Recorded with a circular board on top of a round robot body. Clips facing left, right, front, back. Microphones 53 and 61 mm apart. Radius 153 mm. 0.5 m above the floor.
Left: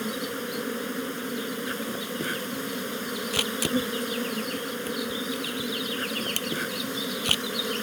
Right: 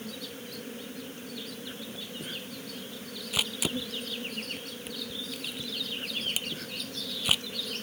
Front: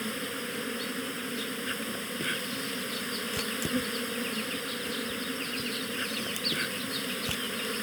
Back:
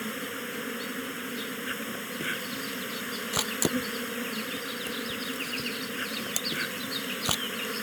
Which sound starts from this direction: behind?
A camera shutter, at 3.3 s.